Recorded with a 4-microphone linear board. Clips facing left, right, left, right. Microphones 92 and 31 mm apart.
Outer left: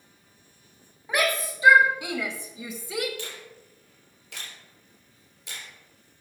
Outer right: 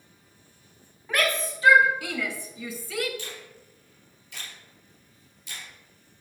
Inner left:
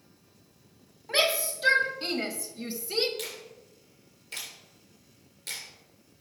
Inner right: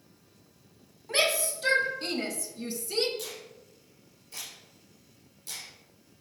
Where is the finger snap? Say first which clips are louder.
Outer left 1 dB, inner left 2 dB; 75° left (ahead or behind), 3.5 m.